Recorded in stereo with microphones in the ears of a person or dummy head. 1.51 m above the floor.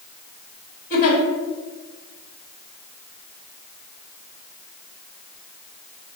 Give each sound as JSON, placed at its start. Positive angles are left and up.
{"t": 0.9, "sound": "a giggle", "side_deg": 40, "distance_m": 1.7}